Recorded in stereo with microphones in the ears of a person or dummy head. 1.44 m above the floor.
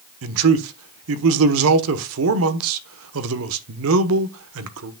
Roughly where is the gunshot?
No gunshot in this recording.